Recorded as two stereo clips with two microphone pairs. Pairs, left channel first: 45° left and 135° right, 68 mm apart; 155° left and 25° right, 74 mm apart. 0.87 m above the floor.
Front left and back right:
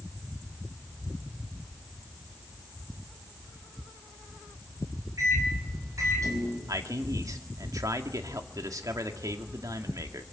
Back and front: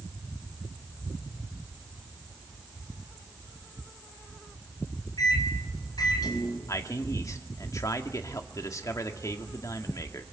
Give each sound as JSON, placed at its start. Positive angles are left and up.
{"t": 5.2, "sound": "a microwave", "azimuth_deg": -175, "distance_m": 5.0}
{"t": 6.7, "sound": "a man speaking", "azimuth_deg": -165, "distance_m": 2.0}